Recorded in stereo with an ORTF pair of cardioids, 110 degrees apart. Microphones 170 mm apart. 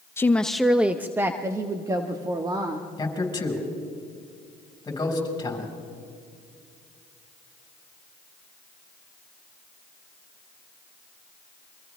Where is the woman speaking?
15° left, 0.6 m; by 2.9 s 25° right, 1.9 m.